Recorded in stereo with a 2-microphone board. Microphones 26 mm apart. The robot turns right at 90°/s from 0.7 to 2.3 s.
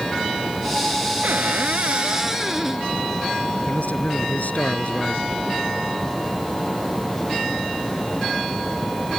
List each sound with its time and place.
1.2 s a cupboard door: 110° right; by 2.9 s 15° right
3.6 s a man speaking: 80° left